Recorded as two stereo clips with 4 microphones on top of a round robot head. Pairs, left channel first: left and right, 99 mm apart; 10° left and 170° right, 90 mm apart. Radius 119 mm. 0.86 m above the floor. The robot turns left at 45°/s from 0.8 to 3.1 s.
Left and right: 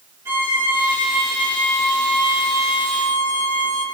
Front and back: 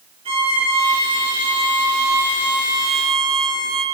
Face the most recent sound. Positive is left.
turn(degrees=100)